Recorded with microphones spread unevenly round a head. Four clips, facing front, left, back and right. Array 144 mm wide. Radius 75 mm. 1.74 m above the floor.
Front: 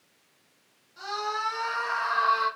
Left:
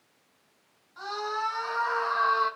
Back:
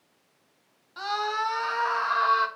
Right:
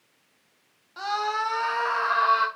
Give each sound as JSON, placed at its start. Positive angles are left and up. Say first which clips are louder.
{"t": 1.0, "sound": "a scream", "louder": "right 5 dB, back 3 dB", "azimuth_deg": -115, "distance_m": 4.5}